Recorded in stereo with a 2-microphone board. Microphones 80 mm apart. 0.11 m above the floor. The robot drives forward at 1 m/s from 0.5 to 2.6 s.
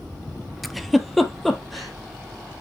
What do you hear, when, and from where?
0.6 s a giggle: centre (ahead or behind), 0.7 m